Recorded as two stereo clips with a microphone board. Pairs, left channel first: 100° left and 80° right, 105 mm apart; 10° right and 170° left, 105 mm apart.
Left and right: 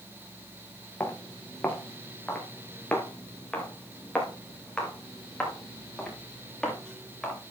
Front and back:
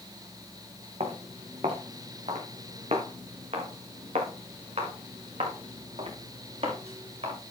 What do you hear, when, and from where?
1.0 s footsteps: 175° left, 4 m; by 7.4 s 175° right, 8 m